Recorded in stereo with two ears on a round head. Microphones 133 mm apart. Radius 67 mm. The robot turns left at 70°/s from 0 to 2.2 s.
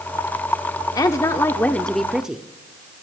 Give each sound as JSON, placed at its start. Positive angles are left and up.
{"t": 0.9, "sound": "a woman speaking", "side_deg": 25, "distance_m": 0.7}